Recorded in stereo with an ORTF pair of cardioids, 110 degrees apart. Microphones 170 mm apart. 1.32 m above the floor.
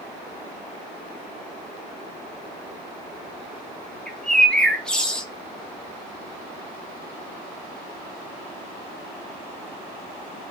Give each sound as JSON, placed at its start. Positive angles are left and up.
{"t": 4.1, "sound": "a bird", "azimuth_deg": 5, "distance_m": 0.6}